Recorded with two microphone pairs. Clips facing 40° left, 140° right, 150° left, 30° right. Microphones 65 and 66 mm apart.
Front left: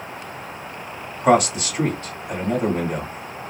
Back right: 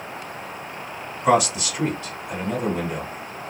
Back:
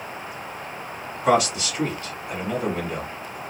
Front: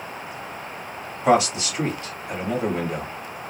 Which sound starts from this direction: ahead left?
A man speaking, at 1.2 s.